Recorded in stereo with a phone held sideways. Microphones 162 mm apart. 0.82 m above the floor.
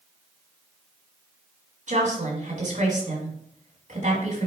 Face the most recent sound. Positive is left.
turn(degrees=-55)  # may be behind; listen again after turning